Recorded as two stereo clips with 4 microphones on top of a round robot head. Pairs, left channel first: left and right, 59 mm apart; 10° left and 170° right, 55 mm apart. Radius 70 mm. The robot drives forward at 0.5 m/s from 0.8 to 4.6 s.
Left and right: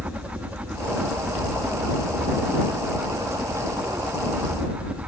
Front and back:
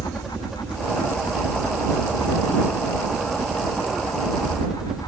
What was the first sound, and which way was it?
A helicopter, 95° right.